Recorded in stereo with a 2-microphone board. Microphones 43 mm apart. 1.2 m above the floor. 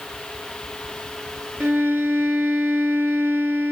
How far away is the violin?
About 1.5 m.